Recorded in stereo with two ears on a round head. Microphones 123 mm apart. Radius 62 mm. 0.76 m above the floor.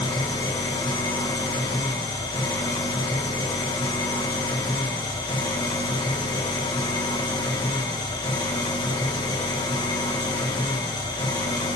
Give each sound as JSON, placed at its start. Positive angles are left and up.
{"t": 0.0, "sound": "an engine running", "side_deg": 30, "distance_m": 2.5}